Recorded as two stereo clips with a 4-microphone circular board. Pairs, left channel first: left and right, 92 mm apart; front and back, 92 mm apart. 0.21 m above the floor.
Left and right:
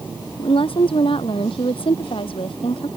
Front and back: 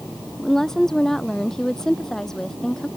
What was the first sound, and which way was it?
A woman speaking, 85° left.